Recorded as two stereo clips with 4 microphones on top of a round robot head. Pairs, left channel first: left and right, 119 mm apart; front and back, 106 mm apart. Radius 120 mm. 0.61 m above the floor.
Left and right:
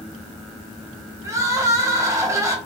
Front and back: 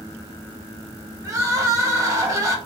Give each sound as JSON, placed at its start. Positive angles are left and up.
{"t": 1.2, "sound": "crying", "azimuth_deg": -140, "distance_m": 1.0}